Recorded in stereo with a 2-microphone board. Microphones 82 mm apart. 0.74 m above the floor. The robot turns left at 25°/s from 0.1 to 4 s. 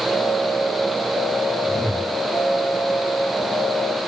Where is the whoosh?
55° left (ahead or behind), 5 m; by 2.1 s 45° left (ahead or behind), 5 m.